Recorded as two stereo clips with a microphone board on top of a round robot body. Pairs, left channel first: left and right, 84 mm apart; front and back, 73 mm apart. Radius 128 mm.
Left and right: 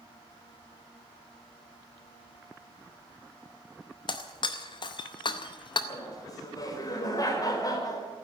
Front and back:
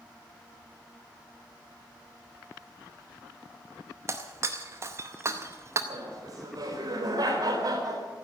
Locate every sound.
4.1 s breaking glass: 125° left, 0.8 m
5.9 s laughter: 140° left, 4 m